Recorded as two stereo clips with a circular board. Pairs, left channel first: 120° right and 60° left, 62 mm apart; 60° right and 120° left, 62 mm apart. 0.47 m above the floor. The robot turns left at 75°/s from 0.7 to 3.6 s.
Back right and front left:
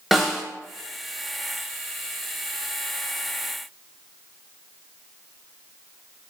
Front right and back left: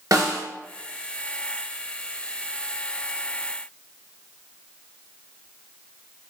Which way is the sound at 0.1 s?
150° left.